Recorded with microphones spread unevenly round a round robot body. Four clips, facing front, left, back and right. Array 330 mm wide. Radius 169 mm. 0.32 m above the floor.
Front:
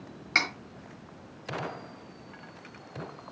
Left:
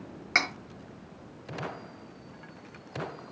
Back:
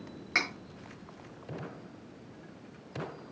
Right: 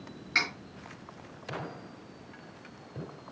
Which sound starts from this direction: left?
Cutlery clinking, at 0.3 s.